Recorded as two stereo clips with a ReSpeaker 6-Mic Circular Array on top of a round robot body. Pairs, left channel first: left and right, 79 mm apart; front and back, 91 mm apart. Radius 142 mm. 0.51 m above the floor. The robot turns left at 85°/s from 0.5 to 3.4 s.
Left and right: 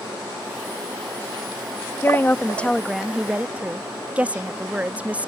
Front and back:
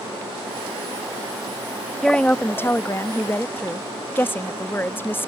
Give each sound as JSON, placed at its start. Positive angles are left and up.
{"t": 2.0, "sound": "a woman speaking", "azimuth_deg": 80}